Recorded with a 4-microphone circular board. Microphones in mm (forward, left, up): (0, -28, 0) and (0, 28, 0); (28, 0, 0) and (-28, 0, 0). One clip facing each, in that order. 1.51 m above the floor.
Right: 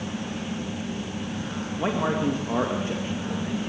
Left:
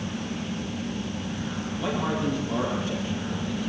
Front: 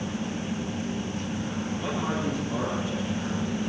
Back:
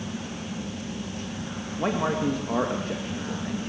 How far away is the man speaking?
About 2 m.